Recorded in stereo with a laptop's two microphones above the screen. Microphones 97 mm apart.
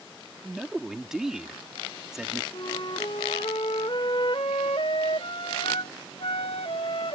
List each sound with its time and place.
0.4 s a man speaking: 5° right (ahead or behind)
2.5 s a flute: 60° left (ahead or behind)